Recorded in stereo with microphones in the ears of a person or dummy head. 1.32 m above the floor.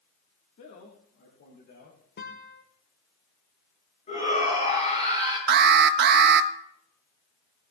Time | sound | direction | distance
0.6 | a man speaking | 40° left (ahead or behind) | 1.4 m
2.2 | a guitar | 45° left (ahead or behind) | 1.3 m
4.1 | a shout | 30° left (ahead or behind) | 8 m
5.5 | an alarm | 50° right (ahead or behind) | 0.7 m